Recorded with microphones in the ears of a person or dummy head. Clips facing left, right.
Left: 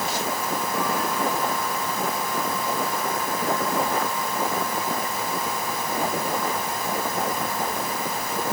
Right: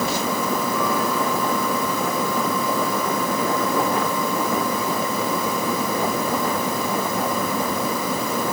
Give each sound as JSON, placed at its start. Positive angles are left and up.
{"t": 0.0, "sound": "a fan", "side_deg": -65}